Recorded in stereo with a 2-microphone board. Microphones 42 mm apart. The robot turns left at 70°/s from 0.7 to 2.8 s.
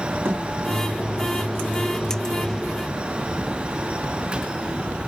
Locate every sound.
0.2 s a thud: 65° right (ahead or behind), 2.5 m